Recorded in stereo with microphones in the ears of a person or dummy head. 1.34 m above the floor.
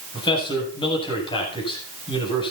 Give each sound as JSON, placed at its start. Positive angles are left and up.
{"t": 0.1, "sound": "a man speaking", "side_deg": 30, "distance_m": 9.0}